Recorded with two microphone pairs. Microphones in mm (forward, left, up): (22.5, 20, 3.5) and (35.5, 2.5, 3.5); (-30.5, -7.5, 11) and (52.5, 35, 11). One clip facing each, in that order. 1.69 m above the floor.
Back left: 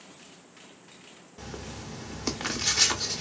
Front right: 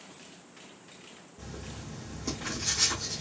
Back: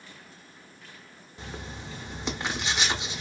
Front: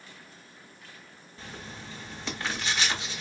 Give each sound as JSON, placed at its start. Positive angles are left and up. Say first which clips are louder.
{"t": 1.4, "sound": "writing", "louder": "back left 4 dB, back 3 dB", "azimuth_deg": 135, "distance_m": 0.7}